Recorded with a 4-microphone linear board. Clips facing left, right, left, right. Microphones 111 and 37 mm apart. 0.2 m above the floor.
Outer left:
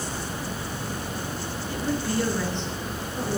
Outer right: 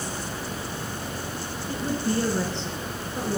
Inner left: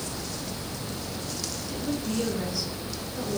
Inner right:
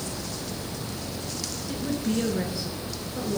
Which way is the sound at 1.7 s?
35° right (ahead or behind).